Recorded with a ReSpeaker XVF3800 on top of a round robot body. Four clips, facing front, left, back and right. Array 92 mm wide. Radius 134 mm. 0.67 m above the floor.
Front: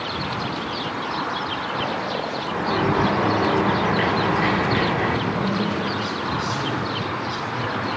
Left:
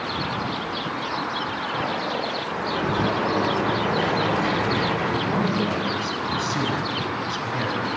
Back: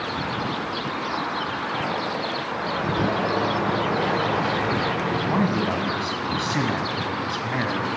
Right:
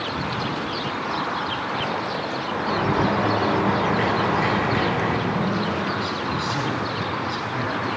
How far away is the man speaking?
About 6 m.